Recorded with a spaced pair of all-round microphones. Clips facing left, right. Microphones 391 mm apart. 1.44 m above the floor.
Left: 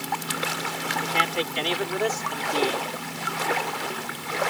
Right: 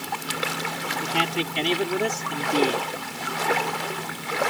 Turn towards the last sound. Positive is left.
turn(degrees=-40)  # may be behind; listen again after turning